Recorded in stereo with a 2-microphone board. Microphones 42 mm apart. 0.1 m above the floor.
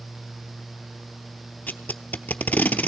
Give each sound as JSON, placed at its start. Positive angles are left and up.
{"t": 1.7, "sound": "tape being pulled", "side_deg": 40, "distance_m": 0.7}